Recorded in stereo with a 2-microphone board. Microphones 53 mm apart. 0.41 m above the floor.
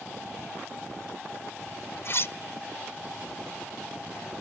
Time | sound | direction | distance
2.0 | cutlery clinking | 50° left (ahead or behind) | 0.5 m